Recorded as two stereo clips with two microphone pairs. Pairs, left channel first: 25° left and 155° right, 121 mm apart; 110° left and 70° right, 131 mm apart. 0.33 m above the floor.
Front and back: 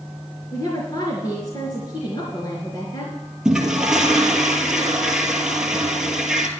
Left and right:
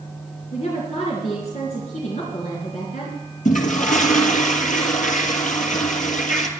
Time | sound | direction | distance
0.5 | a woman speaking | 80° left | 4 m
3.5 | a toilet flushing | 120° left | 1.6 m